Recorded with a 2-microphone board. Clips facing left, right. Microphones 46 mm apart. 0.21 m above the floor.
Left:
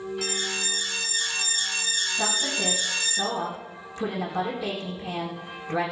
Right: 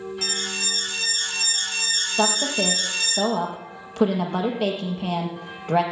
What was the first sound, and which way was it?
An alarm, 50° right (ahead or behind).